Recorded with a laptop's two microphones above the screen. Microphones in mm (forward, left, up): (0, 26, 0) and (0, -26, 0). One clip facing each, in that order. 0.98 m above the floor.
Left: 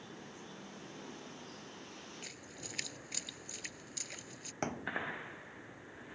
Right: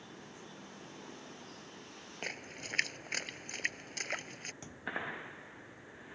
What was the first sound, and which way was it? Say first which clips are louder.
A splash: right 7 dB; 50° right (ahead or behind).